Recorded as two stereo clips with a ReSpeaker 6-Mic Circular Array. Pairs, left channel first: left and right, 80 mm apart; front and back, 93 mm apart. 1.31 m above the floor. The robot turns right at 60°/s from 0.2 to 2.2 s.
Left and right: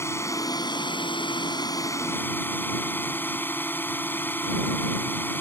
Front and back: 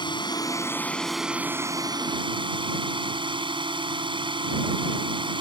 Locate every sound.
0.0 s a drone: 35° left; by 5.4 s 155° left